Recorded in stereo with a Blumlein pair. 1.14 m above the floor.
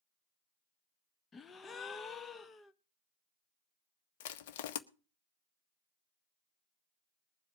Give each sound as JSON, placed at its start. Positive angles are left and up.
{"t": 1.3, "sound": "a gasp", "azimuth_deg": 20, "distance_m": 0.7}
{"t": 4.2, "sound": "crushing", "azimuth_deg": 50, "distance_m": 0.9}